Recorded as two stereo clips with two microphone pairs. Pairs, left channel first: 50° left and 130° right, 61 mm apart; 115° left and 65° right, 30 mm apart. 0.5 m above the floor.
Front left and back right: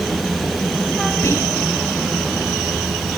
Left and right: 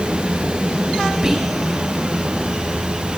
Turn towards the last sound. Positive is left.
turn(degrees=10)